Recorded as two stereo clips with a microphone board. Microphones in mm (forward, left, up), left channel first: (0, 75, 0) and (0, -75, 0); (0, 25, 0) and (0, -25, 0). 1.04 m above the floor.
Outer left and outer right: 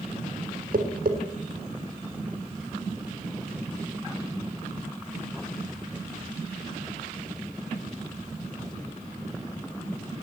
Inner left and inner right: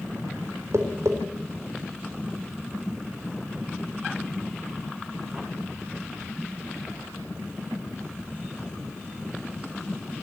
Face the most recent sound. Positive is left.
turn(degrees=-80)